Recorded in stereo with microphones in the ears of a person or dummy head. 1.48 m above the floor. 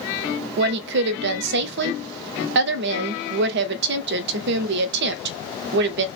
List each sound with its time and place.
0.6 s a woman speaking: 65° right (ahead or behind), 0.5 m